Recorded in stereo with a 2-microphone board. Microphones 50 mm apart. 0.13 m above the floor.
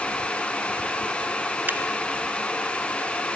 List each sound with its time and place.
1.7 s a finger snap: 40° right (ahead or behind), 1.6 m